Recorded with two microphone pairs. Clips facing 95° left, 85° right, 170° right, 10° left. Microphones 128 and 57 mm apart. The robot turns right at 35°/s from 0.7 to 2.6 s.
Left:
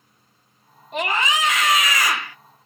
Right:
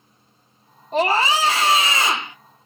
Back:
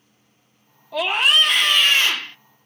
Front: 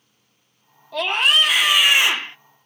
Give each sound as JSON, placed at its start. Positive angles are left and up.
{"t": 0.9, "sound": "a scream", "azimuth_deg": -90, "distance_m": 0.7}